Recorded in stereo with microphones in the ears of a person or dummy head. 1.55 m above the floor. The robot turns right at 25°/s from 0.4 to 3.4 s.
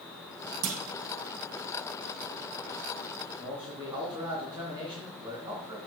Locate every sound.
0.6 s a clunk: 75° right (ahead or behind), 1.7 m; by 0.8 s 70° right (ahead or behind), 1.7 m
3.4 s a man speaking: 25° right (ahead or behind), 3.5 m